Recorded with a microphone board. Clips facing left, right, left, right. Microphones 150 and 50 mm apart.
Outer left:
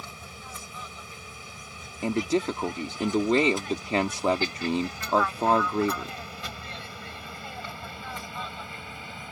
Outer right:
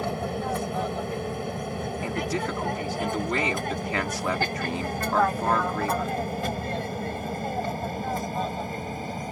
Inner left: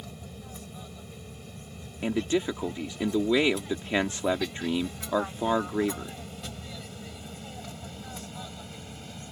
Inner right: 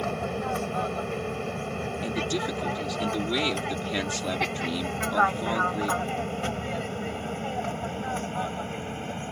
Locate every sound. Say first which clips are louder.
0.0 s an aircraft: outer right 16 dB, inner right 15 dB; 65° right (ahead or behind); by 9.3 s 40° right (ahead or behind)
2.0 s a man speaking: outer left 6 dB, inner left 4 dB; 25° left (ahead or behind)